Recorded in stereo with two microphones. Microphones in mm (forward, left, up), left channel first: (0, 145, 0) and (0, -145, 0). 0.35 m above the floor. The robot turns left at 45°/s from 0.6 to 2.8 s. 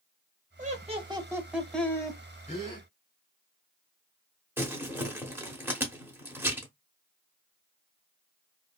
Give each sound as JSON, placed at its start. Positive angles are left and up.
{"t": 0.6, "sound": "laughter", "azimuth_deg": -130, "distance_m": 1.0}
{"t": 2.5, "sound": "a gasp", "side_deg": 25, "distance_m": 1.2}
{"t": 4.6, "sound": "crumpling", "side_deg": -5, "distance_m": 0.9}